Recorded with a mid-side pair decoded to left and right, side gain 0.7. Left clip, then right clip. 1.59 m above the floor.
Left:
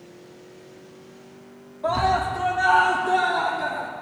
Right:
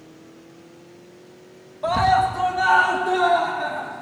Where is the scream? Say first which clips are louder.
Right 4 dB; 55° right, 2.0 m; by 3.9 s 40° right, 4.5 m.